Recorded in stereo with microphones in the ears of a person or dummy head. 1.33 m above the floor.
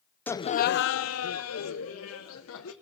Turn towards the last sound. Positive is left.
turn(degrees=75)  # may be behind; listen again after turning